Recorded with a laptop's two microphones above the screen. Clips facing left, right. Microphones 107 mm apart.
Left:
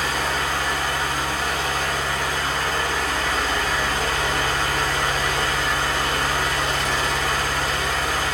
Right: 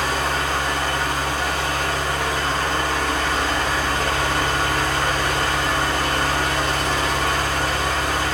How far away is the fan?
About 1.7 m.